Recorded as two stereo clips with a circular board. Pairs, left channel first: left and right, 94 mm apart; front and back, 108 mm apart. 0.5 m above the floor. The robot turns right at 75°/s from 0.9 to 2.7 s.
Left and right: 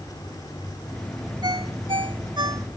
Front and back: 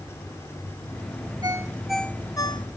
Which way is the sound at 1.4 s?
125° right.